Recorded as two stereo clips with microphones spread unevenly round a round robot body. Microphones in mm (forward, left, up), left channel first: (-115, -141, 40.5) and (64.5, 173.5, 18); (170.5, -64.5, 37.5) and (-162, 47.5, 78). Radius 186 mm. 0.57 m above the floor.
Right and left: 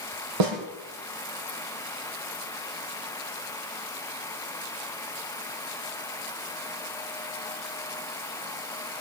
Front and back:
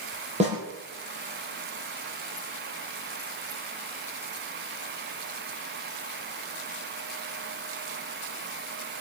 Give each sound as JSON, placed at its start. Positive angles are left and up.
{"t": 0.4, "sound": "a snare drum", "azimuth_deg": 90, "distance_m": 5.5}